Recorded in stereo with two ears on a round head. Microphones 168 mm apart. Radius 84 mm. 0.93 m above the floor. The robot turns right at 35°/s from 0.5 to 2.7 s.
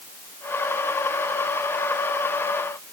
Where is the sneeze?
No sneeze in this recording.